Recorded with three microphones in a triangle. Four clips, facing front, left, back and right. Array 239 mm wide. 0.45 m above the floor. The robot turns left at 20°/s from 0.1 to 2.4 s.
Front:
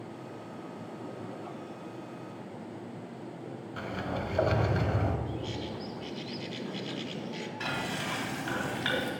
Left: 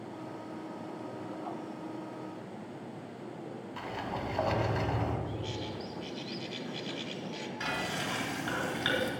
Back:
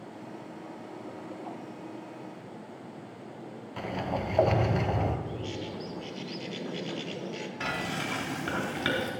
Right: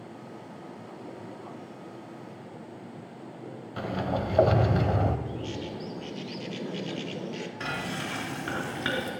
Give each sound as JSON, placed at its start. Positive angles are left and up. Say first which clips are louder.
{"t": 3.8, "sound": "a sliding door", "louder": "right 8 dB, back 3 dB", "azimuth_deg": -110, "distance_m": 1.1}
{"t": 5.3, "sound": "a bird", "louder": "right 3 dB, even", "azimuth_deg": -120, "distance_m": 1.2}
{"t": 7.6, "sound": "frying", "louder": "even, back 2 dB", "azimuth_deg": -155, "distance_m": 4.0}